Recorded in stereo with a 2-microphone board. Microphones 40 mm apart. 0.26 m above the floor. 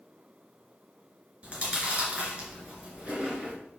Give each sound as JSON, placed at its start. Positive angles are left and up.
{"t": 1.4, "sound": "chewing", "side_deg": -30, "distance_m": 1.9}